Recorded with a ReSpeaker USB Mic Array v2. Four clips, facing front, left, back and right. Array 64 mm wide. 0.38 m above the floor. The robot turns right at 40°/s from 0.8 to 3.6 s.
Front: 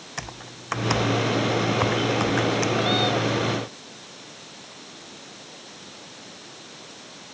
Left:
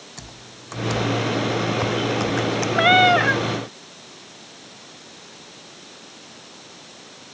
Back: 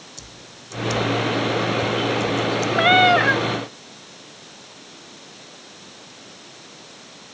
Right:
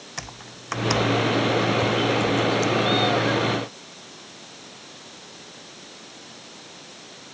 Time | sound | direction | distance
0.2 | typing on a keyboard | 30° right | ?
2.8 | a cat meowing | 125° left | ?